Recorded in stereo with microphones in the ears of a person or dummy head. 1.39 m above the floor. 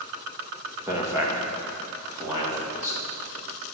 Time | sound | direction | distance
0.9 | a man speaking | 10° right (ahead or behind) | 2 m